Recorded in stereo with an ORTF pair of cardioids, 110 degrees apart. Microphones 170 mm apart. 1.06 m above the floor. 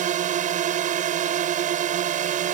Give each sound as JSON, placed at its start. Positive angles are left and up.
{"t": 0.0, "sound": "a drone", "azimuth_deg": -55}